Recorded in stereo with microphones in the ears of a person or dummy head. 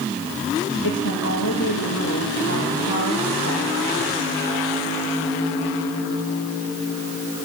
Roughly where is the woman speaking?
Left.